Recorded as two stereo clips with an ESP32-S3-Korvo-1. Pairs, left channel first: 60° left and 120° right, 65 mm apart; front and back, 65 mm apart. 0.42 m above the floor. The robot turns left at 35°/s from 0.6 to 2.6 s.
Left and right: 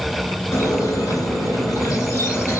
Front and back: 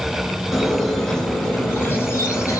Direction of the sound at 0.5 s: 90° left.